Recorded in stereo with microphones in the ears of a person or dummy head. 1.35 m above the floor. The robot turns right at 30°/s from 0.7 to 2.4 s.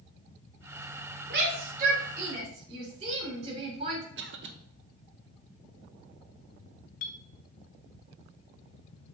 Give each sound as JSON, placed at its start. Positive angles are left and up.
{"t": 1.3, "sound": "a shout", "side_deg": -65, "distance_m": 4.0}
{"t": 4.2, "sound": "a cough", "side_deg": -55, "distance_m": 1.1}
{"t": 7.0, "sound": "a clink", "side_deg": 55, "distance_m": 0.9}